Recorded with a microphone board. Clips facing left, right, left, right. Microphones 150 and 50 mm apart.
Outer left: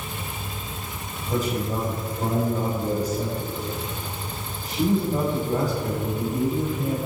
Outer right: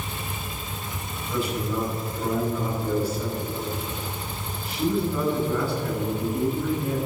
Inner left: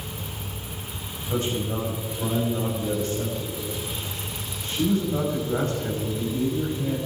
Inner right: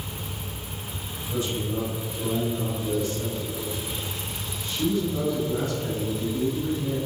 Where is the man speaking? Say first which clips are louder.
Outer left 1 dB, inner left 2 dB; 40° left (ahead or behind), 6 m.